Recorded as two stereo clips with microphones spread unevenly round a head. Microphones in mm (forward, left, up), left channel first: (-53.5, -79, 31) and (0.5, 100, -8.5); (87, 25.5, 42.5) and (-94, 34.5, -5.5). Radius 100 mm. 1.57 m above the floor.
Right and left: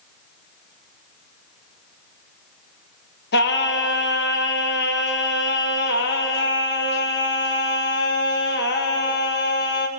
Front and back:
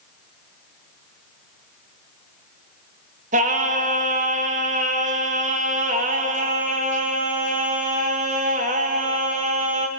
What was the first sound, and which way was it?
Singing, 130° right.